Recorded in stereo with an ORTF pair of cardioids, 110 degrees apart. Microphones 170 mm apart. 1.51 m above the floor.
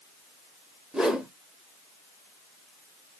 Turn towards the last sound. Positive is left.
turn(degrees=-5)